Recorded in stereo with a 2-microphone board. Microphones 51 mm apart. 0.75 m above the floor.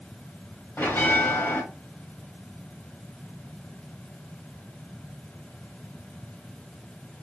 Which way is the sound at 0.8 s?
50° left (ahead or behind).